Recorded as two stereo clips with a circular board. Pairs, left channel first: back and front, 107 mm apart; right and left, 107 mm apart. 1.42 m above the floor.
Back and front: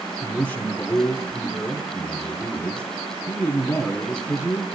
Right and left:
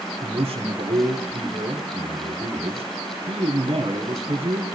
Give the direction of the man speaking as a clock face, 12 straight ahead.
9 o'clock.